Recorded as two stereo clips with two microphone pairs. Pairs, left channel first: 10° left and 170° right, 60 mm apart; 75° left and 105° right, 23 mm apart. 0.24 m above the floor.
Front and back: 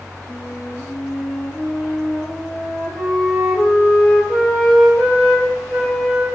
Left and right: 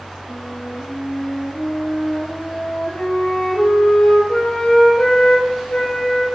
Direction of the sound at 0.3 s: 90° left.